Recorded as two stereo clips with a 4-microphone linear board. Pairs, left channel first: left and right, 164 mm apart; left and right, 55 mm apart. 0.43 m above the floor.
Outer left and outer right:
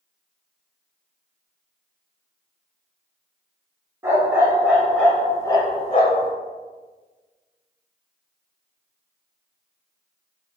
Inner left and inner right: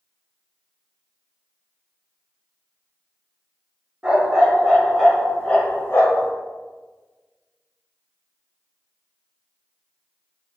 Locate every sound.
4.0 s a dog barking: 15° right (ahead or behind), 1.3 m; by 6.3 s 60° left (ahead or behind), 0.8 m